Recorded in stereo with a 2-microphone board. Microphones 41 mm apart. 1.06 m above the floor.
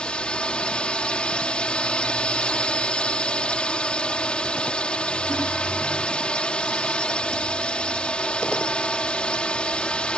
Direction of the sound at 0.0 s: 25° left (ahead or behind).